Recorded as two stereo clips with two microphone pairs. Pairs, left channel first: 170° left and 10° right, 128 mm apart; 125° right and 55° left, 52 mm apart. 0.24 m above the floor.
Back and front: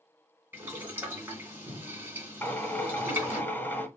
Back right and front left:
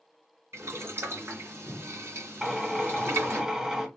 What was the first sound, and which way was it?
Boiling, 60° left.